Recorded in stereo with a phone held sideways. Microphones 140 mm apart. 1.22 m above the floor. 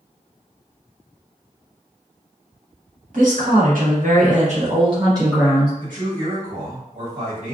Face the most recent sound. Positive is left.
turn(degrees=-75)  # may be behind; listen again after turning